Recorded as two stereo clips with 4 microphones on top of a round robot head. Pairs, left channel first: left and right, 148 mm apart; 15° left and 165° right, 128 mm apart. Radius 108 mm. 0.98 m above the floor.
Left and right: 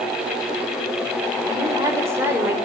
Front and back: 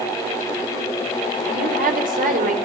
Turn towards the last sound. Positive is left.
turn(degrees=-170)